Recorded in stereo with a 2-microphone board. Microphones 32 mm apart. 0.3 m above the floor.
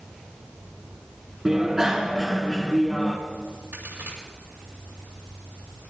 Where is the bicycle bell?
20° right (ahead or behind), 2.5 m.